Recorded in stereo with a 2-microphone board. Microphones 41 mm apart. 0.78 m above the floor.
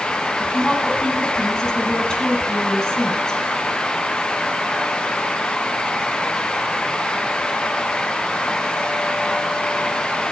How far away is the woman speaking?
About 6 m.